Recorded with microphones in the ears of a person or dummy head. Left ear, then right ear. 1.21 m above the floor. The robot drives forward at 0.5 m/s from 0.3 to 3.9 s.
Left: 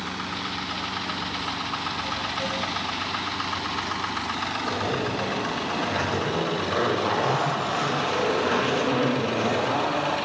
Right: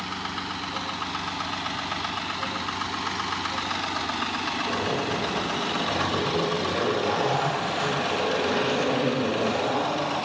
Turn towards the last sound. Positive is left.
turn(degrees=45)  # may be behind; listen again after turning